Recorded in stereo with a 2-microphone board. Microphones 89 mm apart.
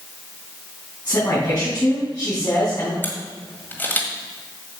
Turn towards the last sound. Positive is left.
turn(degrees=20)  # may be behind; listen again after turning